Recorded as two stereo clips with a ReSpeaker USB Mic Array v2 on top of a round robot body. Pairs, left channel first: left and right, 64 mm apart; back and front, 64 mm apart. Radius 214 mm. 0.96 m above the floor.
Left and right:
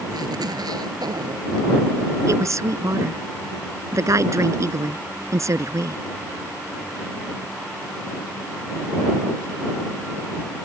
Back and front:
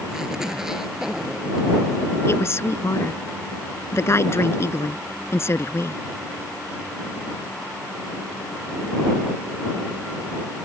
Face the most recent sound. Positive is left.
turn(degrees=-130)